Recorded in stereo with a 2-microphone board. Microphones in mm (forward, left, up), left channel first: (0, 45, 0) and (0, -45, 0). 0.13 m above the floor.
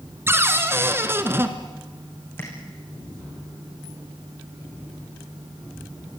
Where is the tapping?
30° left (ahead or behind), 7.5 m.